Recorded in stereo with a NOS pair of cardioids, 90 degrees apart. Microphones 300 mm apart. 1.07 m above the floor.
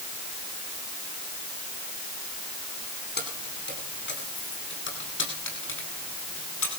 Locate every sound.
3.2 s keys jangling: 35° left, 9 m; by 6.7 s 45° left, 9 m